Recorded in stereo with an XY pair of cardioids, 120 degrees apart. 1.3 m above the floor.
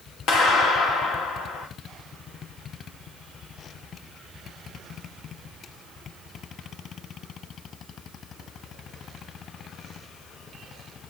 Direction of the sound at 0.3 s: 70° left.